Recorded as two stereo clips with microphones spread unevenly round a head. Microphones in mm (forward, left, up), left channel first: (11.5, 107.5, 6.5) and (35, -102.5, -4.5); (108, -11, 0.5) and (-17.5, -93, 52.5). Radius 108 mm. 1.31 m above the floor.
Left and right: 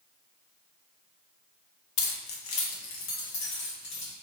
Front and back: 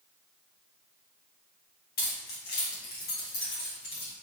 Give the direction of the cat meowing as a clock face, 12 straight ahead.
I don't hear a cat meowing.